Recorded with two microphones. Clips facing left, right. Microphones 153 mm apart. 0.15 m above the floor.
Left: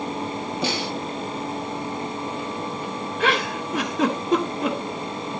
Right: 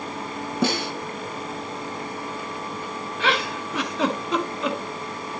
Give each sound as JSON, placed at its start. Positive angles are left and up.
{"t": 0.6, "sound": "a snare drum", "side_deg": -50, "distance_m": 2.5}
{"t": 3.2, "sound": "a giggle", "side_deg": 45, "distance_m": 1.5}